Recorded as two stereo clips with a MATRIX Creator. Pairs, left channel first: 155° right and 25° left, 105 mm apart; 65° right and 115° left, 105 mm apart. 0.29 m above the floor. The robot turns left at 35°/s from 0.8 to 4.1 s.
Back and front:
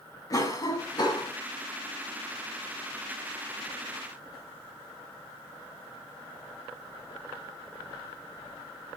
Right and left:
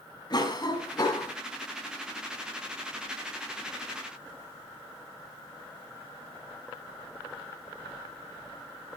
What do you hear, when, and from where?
0.3 s a cough: 110° right, 2.5 m; by 1.3 s 125° right, 2.5 m